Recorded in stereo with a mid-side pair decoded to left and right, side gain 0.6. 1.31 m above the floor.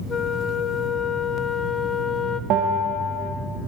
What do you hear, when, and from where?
0.1 s a flute: 30° left, 0.6 m
2.5 s a bell: 60° right, 1.3 m